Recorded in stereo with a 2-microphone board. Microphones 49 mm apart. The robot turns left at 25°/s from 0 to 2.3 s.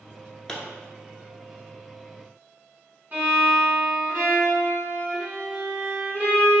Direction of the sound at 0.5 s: 10° left (ahead or behind).